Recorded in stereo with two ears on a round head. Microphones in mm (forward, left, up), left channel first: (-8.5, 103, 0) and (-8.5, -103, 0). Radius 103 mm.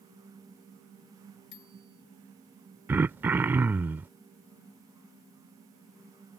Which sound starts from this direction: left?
A bicycle bell, at 1.5 s.